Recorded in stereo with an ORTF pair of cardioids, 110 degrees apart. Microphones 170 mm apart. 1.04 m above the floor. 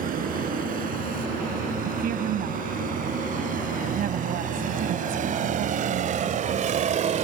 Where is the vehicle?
60° right; by 7.2 s 50° right.